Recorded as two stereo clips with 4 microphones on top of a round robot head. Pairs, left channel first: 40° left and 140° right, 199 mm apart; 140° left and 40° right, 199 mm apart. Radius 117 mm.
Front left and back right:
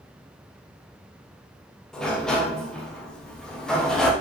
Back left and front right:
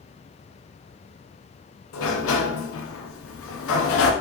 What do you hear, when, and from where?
1.9 s a sliding door: 130° left, 1.1 m